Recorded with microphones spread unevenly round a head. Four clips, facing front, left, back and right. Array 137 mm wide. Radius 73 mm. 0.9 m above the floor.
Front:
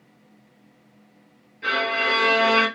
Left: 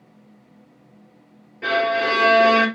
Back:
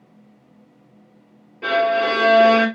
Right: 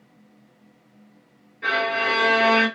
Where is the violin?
155° left, 2.5 m.